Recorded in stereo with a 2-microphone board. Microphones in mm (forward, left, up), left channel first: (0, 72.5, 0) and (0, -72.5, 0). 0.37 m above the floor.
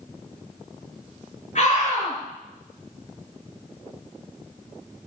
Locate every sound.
1.6 s a scream: 60° left (ahead or behind), 5 m